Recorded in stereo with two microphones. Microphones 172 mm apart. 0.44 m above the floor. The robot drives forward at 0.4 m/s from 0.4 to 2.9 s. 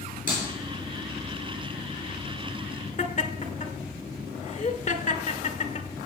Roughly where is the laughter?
Left.